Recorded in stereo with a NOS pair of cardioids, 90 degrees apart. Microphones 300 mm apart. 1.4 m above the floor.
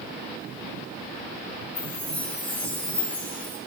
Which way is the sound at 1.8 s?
5° left.